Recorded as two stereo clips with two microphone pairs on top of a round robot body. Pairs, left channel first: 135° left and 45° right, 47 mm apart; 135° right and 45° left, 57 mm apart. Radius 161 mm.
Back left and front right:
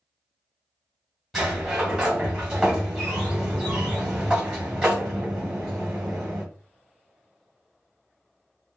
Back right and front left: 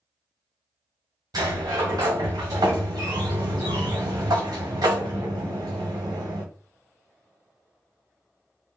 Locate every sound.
1.3 s a sliding door: 40° left, 1.2 m